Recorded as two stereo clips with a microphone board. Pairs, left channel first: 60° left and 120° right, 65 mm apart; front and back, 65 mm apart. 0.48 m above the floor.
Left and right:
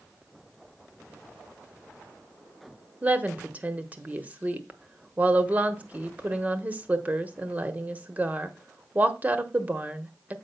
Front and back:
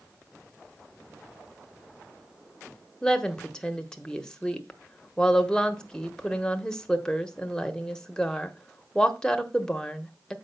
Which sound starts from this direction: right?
A woman speaking, at 3.0 s.